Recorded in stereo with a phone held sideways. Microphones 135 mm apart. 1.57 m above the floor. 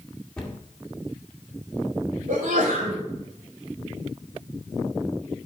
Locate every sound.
0.4 s a cupboard door: 5° left (ahead or behind), 1.8 m
2.3 s a sneeze: 80° right, 3 m